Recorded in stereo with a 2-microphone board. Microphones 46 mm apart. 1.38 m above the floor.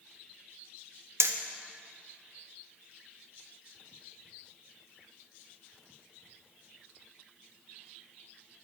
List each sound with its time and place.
1.2 s hammering: 60° right (ahead or behind), 0.6 m